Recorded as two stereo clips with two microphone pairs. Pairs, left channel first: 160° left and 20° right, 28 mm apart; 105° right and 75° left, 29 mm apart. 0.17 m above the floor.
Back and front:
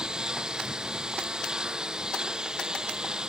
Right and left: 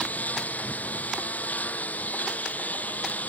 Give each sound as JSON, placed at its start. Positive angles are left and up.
{"t": 0.0, "sound": "a lawn mower", "azimuth_deg": -85}